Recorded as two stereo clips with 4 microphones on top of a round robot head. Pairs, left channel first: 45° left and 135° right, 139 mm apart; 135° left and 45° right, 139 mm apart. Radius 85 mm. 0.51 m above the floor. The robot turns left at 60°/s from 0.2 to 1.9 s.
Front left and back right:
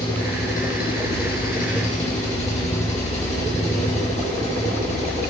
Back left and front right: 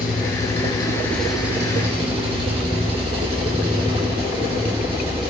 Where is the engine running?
105° left, 3 m; by 5.3 s 5° left, 3 m.